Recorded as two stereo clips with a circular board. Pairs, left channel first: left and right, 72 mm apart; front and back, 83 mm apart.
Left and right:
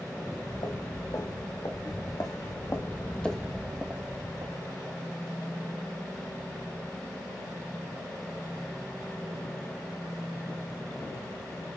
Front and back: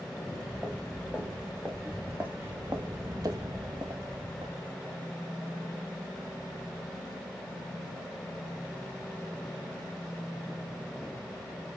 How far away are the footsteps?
About 4.5 m.